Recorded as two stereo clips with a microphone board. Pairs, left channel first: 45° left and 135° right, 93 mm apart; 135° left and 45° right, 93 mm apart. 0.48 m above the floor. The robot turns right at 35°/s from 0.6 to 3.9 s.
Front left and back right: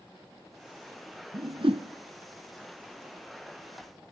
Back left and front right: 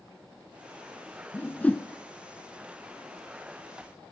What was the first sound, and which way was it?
A whoosh, 165° right.